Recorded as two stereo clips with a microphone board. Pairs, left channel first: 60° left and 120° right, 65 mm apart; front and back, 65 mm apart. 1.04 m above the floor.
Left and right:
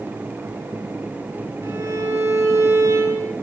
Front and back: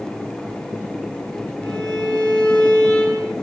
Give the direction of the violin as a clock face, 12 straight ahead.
2 o'clock.